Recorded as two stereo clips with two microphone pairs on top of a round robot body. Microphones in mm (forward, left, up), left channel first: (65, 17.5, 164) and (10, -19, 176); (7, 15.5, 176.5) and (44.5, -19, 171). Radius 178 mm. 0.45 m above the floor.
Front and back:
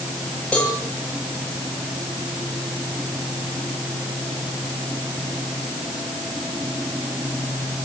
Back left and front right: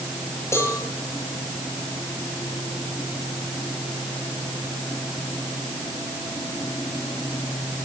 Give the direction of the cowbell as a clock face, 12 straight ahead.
8 o'clock.